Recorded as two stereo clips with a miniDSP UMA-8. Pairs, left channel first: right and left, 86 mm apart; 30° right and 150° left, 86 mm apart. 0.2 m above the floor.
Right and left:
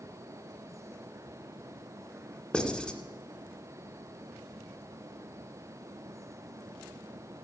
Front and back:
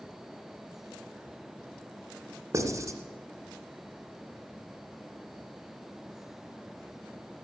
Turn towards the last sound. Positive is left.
turn(degrees=-170)